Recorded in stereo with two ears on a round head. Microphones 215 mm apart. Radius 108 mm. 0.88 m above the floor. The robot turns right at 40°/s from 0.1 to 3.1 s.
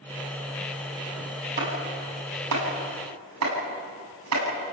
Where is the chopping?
45° right (ahead or behind), 8 m; by 4.5 s 70° right (ahead or behind), 8 m.